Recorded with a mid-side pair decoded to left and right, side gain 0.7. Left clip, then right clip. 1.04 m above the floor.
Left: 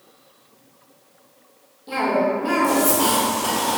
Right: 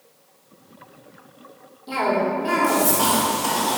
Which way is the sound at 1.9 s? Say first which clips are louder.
Left 1 dB; 10° right.